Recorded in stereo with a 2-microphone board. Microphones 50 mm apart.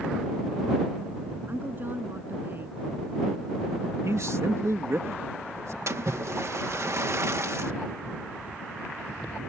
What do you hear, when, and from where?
1.5 s a woman speaking: 45° right (ahead or behind)
4.0 s a man speaking: 70° right (ahead or behind)
5.9 s a splash: 65° right (ahead or behind)